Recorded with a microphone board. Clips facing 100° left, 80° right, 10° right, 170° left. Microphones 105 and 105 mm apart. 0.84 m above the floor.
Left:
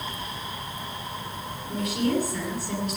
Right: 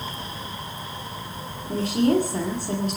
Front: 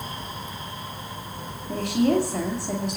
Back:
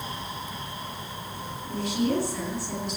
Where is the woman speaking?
45° right, 2.5 m.